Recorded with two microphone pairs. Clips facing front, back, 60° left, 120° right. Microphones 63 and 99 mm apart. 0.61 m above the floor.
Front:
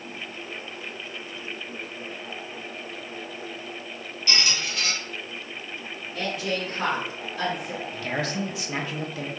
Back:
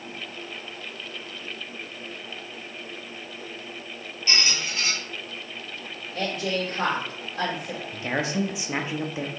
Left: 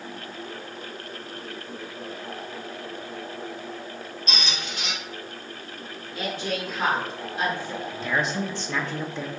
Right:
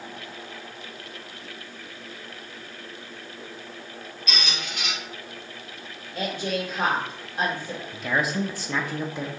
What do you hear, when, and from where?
4.3 s a squeak: 115° left, 2.5 m
6.1 s a woman speaking: 145° right, 1.9 m
7.9 s a man speaking: 165° left, 0.5 m